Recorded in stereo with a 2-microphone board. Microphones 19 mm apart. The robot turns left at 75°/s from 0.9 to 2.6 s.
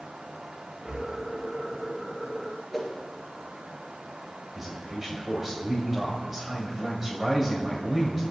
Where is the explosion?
I don't hear an explosion.